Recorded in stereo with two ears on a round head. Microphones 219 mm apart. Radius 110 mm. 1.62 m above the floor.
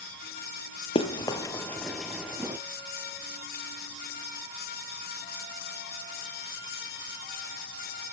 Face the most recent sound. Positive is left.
turn(degrees=-10)  # may be behind; listen again after turning